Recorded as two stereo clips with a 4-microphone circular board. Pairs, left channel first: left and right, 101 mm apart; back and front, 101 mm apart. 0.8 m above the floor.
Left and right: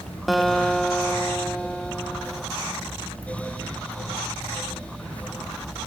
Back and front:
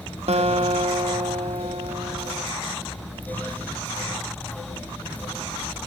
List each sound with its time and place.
0.3 s a guitar: straight ahead, 0.5 m